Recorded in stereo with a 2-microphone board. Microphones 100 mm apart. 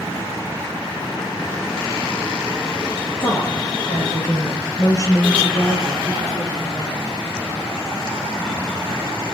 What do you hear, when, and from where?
3.2 s a woman speaking: 50° left (ahead or behind), 3 m; by 7.1 s 35° left (ahead or behind), 5 m